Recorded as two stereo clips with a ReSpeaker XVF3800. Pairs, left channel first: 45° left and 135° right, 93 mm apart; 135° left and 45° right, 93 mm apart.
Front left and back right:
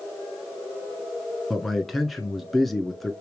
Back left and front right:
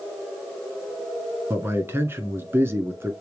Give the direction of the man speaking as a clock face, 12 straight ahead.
1 o'clock.